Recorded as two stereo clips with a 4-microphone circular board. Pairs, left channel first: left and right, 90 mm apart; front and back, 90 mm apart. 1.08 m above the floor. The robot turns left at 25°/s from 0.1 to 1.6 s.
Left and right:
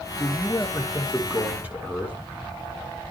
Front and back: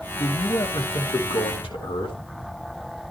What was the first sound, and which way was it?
A man speaking, 20° left.